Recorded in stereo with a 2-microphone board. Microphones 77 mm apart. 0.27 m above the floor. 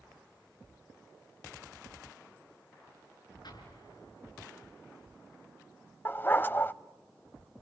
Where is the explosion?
65° left (ahead or behind), 4.5 m.